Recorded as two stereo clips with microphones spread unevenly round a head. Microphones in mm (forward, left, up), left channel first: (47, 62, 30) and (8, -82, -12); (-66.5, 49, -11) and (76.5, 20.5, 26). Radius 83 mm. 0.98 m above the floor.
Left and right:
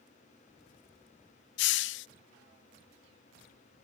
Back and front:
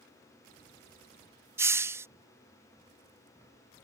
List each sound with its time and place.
1.6 s a hiss: 65° left